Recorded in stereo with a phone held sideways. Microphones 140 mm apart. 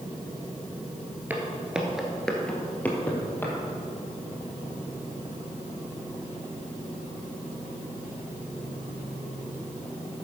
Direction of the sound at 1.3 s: 15° right (ahead or behind).